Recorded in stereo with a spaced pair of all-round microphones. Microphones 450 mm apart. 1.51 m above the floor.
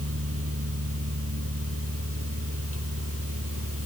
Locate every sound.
0.0 s a fan: 30° right (ahead or behind)